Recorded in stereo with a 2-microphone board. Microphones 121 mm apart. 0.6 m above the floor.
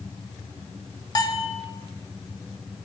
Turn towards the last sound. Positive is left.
turn(degrees=35)  # may be behind; listen again after turning